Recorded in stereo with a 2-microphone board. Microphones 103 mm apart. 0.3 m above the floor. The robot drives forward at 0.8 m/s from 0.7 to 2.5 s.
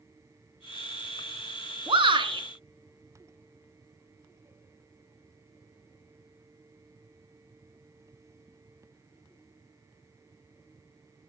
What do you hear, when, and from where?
1.9 s a shout: 60° right (ahead or behind), 2.5 m; by 2.4 s 50° right (ahead or behind), 3 m